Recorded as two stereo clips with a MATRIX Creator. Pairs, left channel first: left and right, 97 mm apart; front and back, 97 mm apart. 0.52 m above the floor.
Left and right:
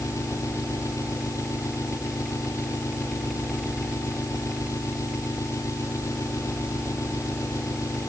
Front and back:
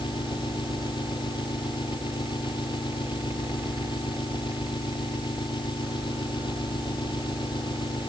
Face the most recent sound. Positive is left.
turn(degrees=35)